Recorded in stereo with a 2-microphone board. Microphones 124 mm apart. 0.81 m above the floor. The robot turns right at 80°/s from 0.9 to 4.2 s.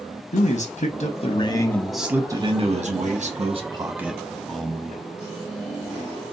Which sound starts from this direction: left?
A man speaking, at 0.3 s.